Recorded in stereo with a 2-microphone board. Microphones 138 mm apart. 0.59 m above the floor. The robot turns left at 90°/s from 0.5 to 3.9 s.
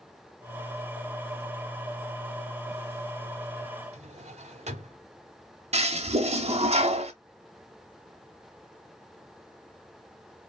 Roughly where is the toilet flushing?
Right.